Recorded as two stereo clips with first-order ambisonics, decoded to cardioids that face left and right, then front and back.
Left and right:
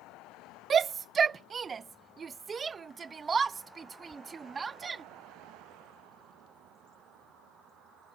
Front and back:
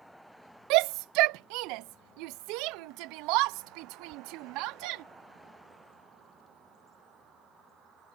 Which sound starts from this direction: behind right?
A shout, at 0.7 s.